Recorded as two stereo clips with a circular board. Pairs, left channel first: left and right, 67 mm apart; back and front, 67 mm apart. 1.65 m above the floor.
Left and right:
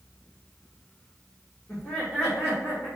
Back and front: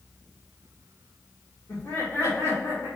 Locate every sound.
1.7 s laughter: 165° left, 1.6 m; by 2.9 s 175° right, 3 m